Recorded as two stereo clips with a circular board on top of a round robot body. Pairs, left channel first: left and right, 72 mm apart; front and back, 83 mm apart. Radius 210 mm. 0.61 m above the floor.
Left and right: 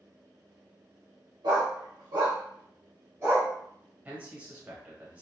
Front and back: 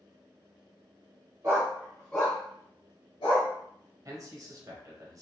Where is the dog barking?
120° right, 0.7 m; by 3.5 s 25° right, 1.0 m.